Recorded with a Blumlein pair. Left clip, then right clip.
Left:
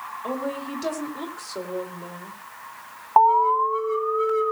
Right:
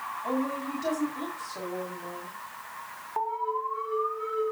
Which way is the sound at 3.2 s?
45° left.